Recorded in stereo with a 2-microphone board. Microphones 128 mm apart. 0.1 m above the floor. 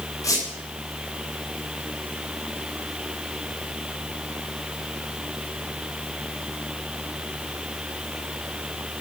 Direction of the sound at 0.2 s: 25° left (ahead or behind).